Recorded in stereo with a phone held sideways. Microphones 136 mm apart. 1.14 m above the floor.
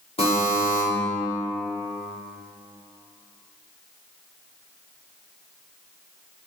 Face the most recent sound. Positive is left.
turn(degrees=45)  # may be behind; listen again after turning